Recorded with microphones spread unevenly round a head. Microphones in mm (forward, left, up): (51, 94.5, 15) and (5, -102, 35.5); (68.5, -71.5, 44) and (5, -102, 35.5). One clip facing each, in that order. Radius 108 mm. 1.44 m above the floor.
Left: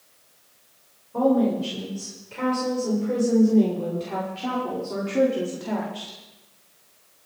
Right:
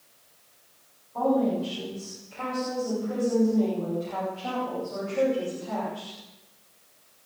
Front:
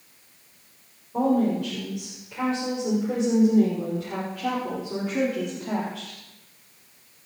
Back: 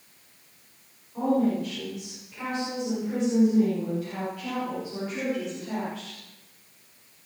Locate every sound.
1.1 s a woman speaking: 60° left, 7.5 m; by 6.2 s 80° left, 4 m